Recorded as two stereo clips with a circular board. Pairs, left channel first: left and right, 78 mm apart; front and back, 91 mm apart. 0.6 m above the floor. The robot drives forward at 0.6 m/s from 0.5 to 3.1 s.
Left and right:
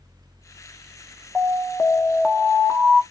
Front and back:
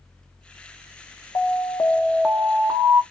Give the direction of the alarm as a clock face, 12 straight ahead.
12 o'clock.